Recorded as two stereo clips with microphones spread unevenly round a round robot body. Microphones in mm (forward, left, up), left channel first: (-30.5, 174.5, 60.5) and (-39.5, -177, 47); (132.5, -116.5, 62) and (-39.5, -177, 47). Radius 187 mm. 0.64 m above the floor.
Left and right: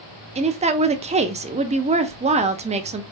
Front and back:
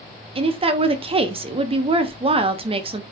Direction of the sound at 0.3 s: 145° right.